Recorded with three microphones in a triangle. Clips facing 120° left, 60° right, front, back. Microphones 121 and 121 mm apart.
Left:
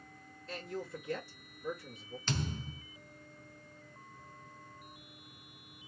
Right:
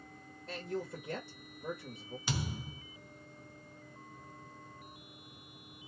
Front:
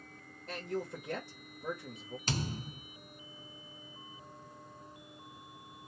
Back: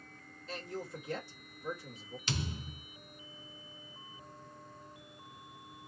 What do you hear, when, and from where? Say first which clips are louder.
0.5 s a man speaking: right 2 dB, front 4 dB; 30° right, 1.2 m
2.3 s a thud: left 1 dB, front 2 dB; 15° left, 0.6 m